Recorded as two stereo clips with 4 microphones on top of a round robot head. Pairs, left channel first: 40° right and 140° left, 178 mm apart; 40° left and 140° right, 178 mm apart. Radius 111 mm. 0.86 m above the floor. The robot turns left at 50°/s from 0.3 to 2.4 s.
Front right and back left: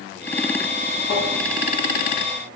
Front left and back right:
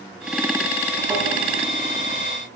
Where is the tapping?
65° right, 6.5 m; by 1.3 s 70° right, 6.5 m.